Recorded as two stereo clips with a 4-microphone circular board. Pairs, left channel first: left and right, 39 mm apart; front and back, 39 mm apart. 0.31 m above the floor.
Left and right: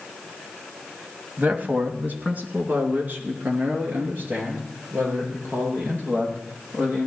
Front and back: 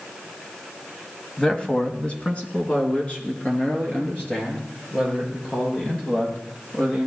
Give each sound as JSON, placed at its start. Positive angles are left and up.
{"t": 1.4, "sound": "a man speaking", "azimuth_deg": -60, "distance_m": 1.6}